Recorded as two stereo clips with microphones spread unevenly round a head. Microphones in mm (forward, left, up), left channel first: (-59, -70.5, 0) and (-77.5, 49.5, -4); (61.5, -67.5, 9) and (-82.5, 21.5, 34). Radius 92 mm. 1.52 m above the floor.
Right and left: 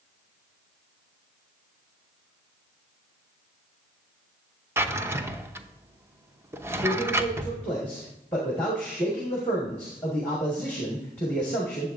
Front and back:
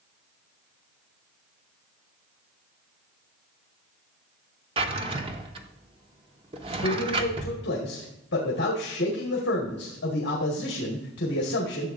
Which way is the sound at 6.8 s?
Straight ahead.